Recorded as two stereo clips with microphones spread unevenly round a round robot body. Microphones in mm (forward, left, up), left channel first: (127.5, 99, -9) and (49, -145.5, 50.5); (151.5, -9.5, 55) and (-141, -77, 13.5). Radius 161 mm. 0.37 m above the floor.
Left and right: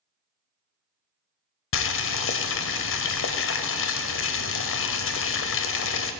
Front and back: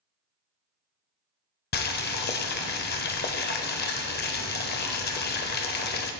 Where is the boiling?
75° left, 0.8 m.